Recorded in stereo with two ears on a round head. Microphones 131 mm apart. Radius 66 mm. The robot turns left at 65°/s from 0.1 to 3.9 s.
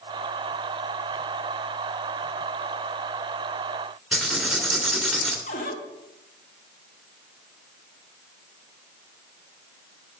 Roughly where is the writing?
Centre.